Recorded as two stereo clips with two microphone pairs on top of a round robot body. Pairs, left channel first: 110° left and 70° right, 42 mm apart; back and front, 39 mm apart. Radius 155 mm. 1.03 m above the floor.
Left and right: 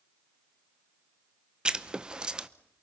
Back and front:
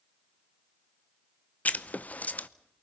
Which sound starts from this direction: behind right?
Writing, at 1.6 s.